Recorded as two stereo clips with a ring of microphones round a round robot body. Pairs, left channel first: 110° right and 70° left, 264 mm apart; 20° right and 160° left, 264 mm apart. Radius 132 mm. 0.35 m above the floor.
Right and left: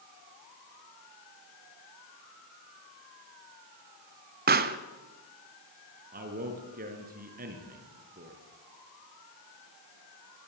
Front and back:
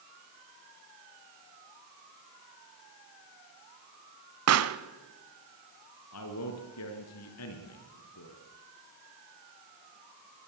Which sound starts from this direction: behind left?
A pop, at 4.5 s.